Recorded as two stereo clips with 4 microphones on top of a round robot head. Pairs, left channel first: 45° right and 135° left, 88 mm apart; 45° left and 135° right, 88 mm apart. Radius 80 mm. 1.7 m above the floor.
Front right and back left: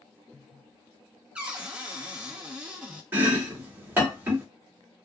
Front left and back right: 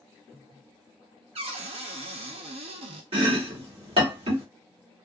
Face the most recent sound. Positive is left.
turn(degrees=-155)